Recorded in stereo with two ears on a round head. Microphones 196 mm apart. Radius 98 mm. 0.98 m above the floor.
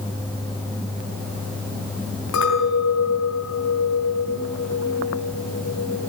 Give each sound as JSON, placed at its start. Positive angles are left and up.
{"t": 2.3, "sound": "a clink", "side_deg": 70, "distance_m": 5.5}